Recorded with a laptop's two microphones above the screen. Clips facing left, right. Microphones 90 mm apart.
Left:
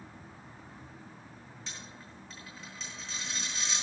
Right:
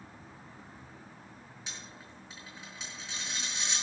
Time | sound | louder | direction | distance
1.7 | a dropped coin | even | 10° right (ahead or behind) | 7 m